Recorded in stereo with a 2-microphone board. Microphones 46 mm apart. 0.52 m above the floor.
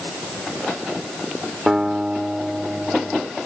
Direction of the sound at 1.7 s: 5° left (ahead or behind).